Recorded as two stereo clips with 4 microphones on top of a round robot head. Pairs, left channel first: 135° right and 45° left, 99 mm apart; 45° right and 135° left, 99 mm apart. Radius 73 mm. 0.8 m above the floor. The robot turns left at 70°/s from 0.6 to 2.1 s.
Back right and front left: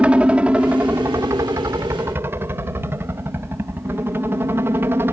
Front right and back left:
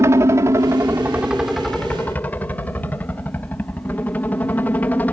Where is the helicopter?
110° left; by 5.1 s 5° left.